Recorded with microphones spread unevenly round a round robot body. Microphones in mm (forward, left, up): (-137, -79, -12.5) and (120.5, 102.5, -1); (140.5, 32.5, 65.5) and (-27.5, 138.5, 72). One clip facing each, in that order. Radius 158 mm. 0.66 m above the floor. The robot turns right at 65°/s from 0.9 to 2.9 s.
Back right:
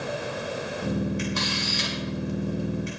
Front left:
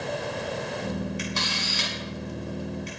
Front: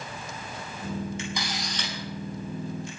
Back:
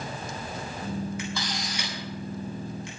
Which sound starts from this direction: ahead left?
A camera shutter, at 1.2 s.